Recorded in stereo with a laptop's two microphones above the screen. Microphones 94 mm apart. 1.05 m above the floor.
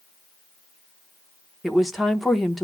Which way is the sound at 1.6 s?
Centre (ahead or behind).